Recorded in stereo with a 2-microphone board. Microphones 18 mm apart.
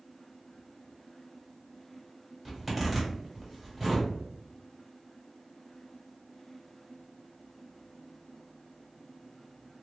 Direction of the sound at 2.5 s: 10° right (ahead or behind).